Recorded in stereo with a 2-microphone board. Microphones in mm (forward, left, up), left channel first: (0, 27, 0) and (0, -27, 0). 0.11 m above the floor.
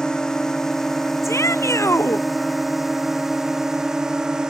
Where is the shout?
65° left (ahead or behind).